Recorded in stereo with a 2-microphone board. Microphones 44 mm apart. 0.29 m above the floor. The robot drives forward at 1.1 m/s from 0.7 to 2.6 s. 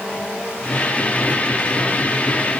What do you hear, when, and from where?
Only background noise.